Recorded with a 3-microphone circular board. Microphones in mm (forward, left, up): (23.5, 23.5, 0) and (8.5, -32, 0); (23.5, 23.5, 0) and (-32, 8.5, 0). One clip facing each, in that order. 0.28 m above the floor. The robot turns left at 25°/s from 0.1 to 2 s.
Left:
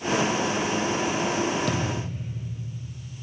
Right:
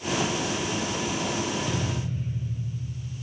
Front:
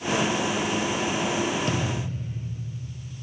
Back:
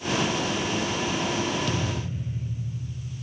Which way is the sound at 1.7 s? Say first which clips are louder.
Left 2 dB, front 1 dB; 65° left.